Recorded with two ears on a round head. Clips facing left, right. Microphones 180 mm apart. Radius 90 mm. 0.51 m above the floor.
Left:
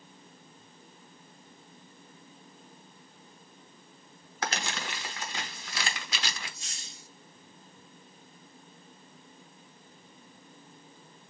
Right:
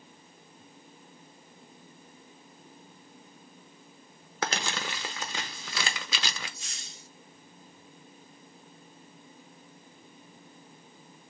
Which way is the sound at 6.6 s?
70° right (ahead or behind).